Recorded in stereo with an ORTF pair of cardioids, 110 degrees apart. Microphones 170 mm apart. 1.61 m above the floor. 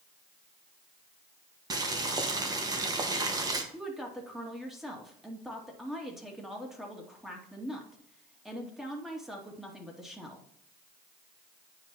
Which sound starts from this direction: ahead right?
Boiling, at 1.7 s.